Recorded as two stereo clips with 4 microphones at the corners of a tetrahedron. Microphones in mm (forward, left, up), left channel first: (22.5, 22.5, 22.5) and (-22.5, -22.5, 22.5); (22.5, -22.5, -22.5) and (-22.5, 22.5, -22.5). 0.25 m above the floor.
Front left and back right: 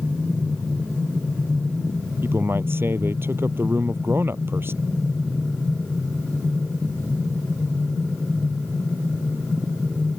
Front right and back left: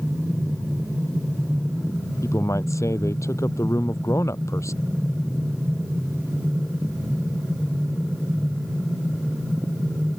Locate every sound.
2.2 s a man speaking: 80° right